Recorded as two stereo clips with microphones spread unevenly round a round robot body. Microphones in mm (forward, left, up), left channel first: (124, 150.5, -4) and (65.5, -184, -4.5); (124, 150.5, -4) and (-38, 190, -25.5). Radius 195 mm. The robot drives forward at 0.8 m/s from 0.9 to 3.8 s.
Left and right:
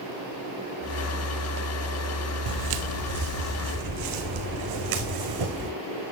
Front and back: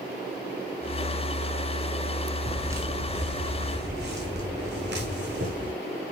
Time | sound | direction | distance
2.5 | footsteps | 100° right | 1.3 m